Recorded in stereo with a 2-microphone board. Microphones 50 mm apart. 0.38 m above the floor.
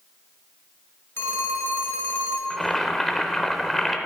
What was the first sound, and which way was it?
A phone ringing, 55° left (ahead or behind).